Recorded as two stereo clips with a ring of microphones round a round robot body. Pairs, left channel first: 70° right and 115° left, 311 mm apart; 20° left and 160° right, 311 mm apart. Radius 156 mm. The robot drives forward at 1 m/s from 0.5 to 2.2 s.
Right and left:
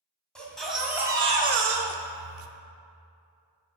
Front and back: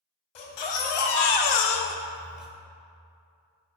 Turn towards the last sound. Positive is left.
turn(degrees=115)